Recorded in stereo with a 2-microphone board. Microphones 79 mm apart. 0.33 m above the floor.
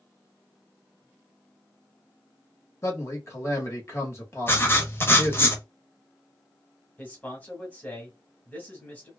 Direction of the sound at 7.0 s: 20° left (ahead or behind).